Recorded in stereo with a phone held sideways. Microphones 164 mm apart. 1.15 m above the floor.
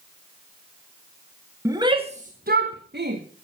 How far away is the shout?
About 1.7 m.